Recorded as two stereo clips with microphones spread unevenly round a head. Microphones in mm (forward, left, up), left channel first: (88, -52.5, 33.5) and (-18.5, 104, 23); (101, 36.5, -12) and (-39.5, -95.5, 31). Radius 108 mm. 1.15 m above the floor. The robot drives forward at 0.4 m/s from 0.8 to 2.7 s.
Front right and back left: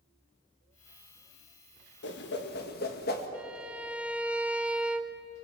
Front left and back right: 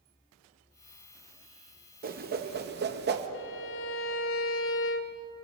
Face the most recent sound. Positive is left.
turn(degrees=40)